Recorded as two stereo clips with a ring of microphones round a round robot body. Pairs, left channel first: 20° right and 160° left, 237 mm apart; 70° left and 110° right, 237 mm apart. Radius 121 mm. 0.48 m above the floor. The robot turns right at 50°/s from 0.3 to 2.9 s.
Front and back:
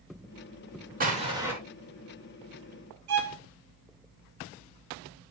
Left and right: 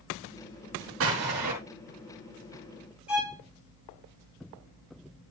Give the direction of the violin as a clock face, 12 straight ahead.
7 o'clock.